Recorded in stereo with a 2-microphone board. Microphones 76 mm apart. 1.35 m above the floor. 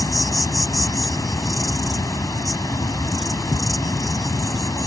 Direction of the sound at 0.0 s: 55° left (ahead or behind).